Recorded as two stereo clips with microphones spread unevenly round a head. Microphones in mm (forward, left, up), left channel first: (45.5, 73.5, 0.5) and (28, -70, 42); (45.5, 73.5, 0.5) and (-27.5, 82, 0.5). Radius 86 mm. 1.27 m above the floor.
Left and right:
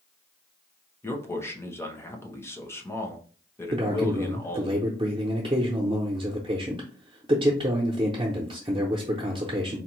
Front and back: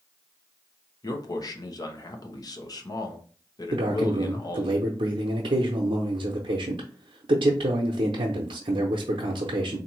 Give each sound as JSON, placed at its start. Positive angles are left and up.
{"t": 1.0, "sound": "a man speaking", "azimuth_deg": 20, "distance_m": 1.0}
{"t": 3.7, "sound": "a man speaking", "azimuth_deg": -160, "distance_m": 0.5}